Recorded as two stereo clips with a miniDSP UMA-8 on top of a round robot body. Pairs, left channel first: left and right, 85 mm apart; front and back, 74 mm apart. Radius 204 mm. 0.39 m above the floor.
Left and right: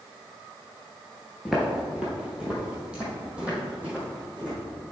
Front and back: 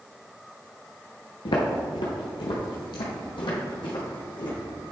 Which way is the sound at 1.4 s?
5° right.